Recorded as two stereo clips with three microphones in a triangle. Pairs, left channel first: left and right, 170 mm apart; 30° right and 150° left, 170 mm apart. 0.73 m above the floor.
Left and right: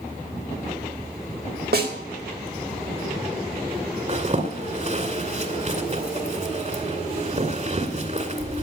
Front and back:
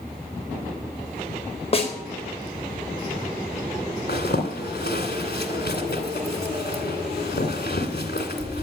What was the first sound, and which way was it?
A snare drum, 80° right.